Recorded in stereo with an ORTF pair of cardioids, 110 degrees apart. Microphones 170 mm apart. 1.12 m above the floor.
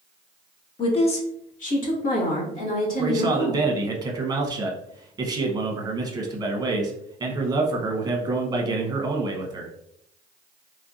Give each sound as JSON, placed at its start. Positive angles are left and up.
{"t": 0.8, "sound": "a woman speaking", "azimuth_deg": 30, "distance_m": 0.7}
{"t": 3.0, "sound": "a man speaking", "azimuth_deg": -25, "distance_m": 0.9}